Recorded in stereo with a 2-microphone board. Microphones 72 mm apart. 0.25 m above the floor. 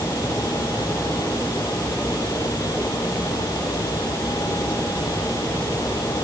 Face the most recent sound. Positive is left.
No sound to turn to.